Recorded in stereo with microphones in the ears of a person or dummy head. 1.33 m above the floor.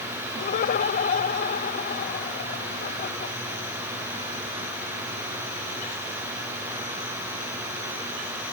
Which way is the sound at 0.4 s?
55° left (ahead or behind).